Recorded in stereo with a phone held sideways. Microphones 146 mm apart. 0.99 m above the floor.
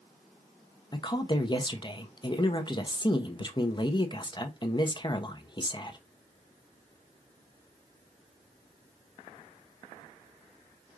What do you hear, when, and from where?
0.9 s a woman speaking: 30° left (ahead or behind), 0.8 m